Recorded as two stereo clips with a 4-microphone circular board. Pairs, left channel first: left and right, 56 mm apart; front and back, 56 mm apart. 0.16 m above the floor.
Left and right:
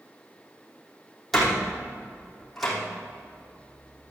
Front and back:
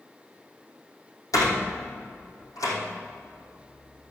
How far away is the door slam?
About 4.5 m.